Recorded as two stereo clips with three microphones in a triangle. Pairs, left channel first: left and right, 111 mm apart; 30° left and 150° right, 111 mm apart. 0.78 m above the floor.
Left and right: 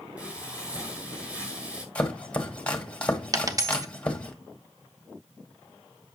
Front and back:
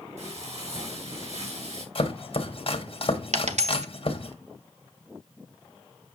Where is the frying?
170° right, 6 m.